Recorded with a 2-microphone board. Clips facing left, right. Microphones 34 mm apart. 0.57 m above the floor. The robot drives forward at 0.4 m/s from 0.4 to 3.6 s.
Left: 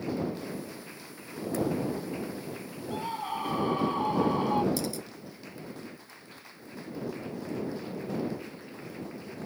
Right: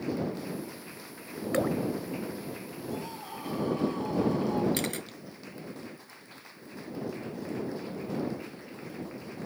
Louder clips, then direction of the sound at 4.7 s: Right 1 dB; 55° right (ahead or behind).